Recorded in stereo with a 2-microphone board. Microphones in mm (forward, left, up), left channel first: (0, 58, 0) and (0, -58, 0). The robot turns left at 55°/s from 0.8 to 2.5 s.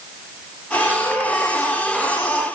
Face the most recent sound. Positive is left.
No sound to turn to.